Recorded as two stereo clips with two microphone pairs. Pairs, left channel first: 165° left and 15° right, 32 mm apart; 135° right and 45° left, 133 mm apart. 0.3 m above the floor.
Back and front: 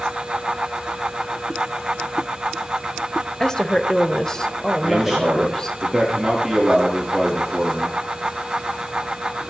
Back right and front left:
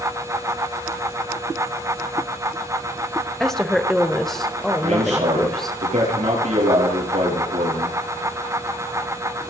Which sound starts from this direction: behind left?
A woman speaking, at 3.4 s.